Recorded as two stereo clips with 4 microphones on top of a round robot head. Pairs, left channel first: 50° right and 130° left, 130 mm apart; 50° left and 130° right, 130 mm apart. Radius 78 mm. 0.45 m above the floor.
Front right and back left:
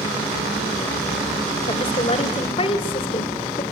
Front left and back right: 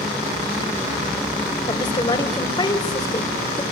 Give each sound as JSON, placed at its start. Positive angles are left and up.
{"t": 1.7, "sound": "a woman speaking", "azimuth_deg": -5, "distance_m": 2.5}